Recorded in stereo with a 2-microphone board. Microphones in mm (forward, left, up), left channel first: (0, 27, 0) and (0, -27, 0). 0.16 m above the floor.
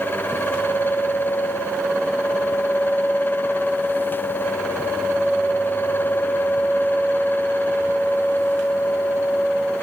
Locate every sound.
Only background noise.